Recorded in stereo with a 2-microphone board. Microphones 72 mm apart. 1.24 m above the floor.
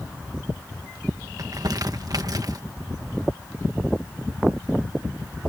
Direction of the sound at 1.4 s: 55° right (ahead or behind).